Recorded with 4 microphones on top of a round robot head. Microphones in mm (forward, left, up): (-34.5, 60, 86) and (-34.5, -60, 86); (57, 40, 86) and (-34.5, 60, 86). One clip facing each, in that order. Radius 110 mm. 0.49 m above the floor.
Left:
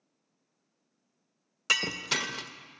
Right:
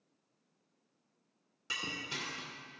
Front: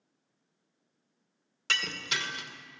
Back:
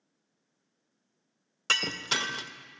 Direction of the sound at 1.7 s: 110° left.